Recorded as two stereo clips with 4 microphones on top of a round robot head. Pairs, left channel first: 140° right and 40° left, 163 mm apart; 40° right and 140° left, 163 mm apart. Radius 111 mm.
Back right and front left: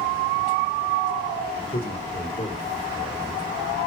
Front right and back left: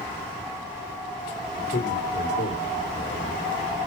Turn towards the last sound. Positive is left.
turn(degrees=-70)